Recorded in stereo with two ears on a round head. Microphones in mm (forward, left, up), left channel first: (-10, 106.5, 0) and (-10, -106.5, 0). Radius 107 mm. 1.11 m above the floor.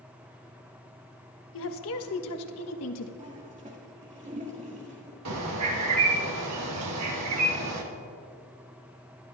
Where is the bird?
75° right (ahead or behind), 1.6 m.